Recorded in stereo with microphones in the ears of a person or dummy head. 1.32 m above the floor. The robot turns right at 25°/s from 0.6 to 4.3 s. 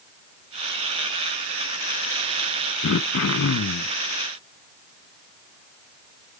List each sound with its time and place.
2.8 s throat clearing: 65° left (ahead or behind), 0.5 m